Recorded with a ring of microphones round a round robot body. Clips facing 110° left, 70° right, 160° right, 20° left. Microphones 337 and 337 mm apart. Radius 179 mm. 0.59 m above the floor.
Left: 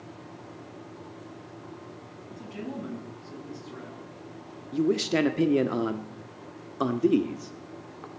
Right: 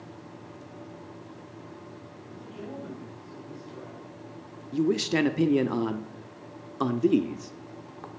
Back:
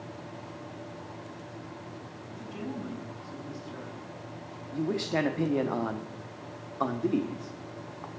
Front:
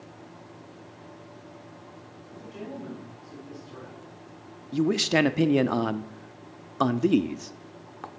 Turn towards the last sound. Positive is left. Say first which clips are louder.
# even, front 6 dB
turn(degrees=15)